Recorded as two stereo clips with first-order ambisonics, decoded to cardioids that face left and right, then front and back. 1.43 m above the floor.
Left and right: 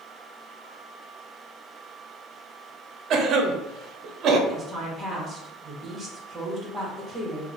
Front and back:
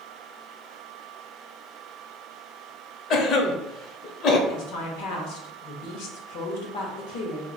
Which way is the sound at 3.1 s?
45° right.